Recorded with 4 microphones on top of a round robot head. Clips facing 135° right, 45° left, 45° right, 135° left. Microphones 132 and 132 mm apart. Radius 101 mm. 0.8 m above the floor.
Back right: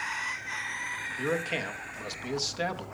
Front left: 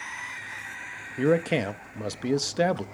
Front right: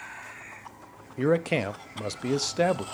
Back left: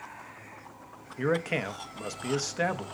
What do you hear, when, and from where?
1.2 s a man speaking: 15° left, 0.7 m